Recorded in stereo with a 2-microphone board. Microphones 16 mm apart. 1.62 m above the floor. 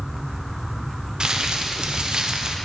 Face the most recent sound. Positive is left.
turn(degrees=-60)  # may be behind; listen again after turning